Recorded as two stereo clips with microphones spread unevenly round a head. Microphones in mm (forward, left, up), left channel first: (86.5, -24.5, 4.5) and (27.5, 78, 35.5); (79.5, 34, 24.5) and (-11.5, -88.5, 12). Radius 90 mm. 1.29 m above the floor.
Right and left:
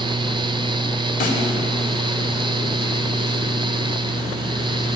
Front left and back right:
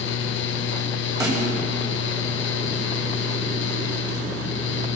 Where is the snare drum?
60° right, 4 m.